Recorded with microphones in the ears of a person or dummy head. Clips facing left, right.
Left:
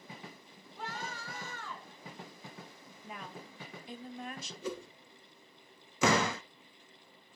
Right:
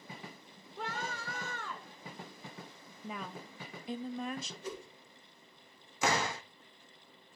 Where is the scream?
55° right (ahead or behind), 5 m.